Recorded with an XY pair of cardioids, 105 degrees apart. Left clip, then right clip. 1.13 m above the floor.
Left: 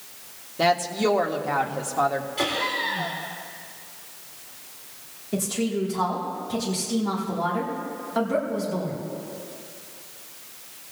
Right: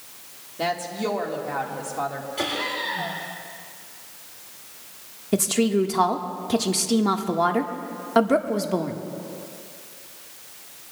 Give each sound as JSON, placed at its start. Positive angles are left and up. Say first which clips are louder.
{"t": 0.6, "sound": "a woman speaking", "louder": "left 5 dB", "azimuth_deg": 30, "distance_m": 1.7}
{"t": 2.4, "sound": "laughter", "louder": "even", "azimuth_deg": 0, "distance_m": 3.0}
{"t": 5.3, "sound": "a woman speaking", "louder": "right 5 dB", "azimuth_deg": -60, "distance_m": 1.5}